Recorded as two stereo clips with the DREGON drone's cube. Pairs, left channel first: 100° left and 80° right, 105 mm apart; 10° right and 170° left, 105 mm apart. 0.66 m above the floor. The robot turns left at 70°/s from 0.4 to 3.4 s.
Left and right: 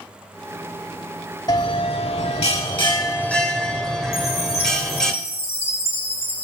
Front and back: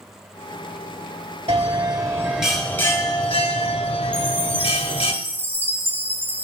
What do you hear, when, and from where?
1.5 s a bell: 150° left, 0.9 m; by 5.1 s 15° left, 0.9 m
4.1 s a chime: 100° left, 1.3 m